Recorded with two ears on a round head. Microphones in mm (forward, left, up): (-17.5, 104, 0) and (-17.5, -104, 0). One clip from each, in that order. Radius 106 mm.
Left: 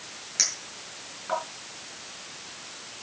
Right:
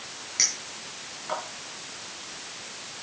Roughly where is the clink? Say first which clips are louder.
Right 1 dB; centre.